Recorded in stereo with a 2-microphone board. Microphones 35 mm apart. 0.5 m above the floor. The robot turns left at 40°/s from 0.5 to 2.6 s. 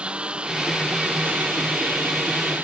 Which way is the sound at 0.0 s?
30° right.